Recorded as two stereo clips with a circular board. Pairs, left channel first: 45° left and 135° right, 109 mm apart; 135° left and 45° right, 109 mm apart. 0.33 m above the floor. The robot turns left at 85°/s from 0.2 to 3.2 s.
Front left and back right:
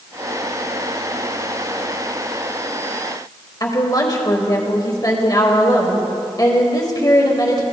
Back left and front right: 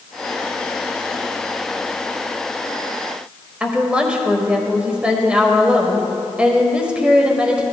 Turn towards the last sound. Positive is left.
turn(degrees=30)